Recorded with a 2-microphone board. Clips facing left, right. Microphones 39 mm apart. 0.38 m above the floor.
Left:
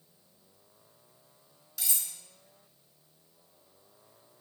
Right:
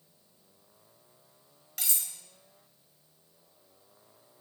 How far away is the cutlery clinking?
About 1.1 m.